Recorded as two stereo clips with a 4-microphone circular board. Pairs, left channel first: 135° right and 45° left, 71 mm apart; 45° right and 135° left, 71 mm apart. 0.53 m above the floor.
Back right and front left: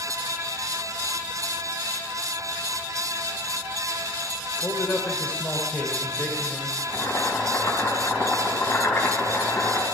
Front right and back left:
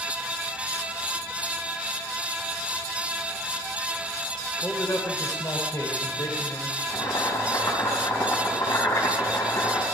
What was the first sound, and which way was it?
A man speaking, 85° right.